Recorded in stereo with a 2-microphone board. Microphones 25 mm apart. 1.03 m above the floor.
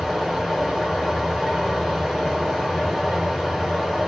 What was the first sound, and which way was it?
Running water, centre (ahead or behind).